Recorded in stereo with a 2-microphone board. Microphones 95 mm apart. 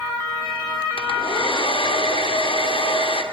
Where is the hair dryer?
75° left (ahead or behind), 2.5 m.